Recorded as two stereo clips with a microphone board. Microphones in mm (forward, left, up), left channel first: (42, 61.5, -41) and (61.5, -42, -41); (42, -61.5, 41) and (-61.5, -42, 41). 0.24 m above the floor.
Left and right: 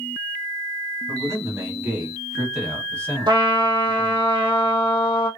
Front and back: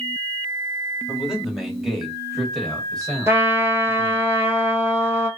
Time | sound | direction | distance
1.1 | a man speaking | 110° right | 1.2 m
3.3 | a trumpet | 125° right | 0.8 m